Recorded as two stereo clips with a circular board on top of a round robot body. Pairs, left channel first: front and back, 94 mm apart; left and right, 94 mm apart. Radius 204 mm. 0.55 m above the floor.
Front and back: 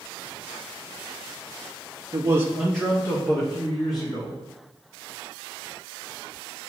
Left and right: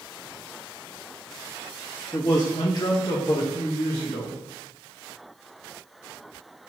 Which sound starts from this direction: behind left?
A man speaking, at 2.1 s.